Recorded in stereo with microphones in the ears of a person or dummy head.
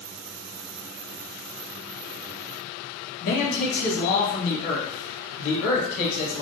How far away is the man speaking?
About 1.7 m.